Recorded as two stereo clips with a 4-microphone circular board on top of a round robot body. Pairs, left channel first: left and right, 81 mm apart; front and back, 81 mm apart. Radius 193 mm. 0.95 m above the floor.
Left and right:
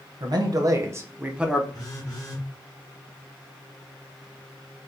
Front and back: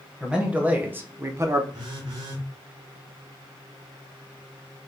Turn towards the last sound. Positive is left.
turn(degrees=145)